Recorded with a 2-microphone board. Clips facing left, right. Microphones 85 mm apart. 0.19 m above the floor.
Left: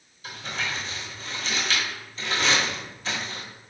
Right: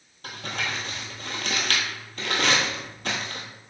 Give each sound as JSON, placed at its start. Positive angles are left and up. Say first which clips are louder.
{"t": 0.2, "sound": "crumpling", "louder": "even", "side_deg": -60, "distance_m": 0.9}